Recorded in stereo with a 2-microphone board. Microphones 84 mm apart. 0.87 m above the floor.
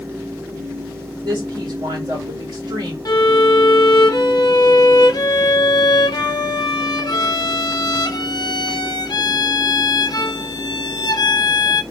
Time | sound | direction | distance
1.2 | a woman speaking | 65° right (ahead or behind) | 1.2 m
3.0 | a violin | 55° left (ahead or behind) | 0.6 m